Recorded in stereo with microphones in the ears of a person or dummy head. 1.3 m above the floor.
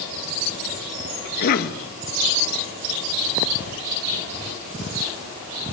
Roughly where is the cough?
Left.